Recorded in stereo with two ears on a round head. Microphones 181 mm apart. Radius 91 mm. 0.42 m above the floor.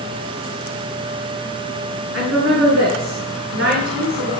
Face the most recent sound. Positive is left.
turn(degrees=-55)  # may be behind; listen again after turning